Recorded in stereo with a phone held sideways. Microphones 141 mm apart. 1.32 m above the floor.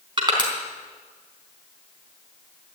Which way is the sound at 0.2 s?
35° right (ahead or behind).